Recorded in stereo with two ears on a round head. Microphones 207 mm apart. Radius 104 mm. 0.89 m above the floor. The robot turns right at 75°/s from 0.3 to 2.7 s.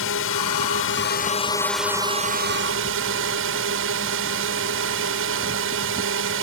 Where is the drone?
70° left; by 6.4 s 110° right.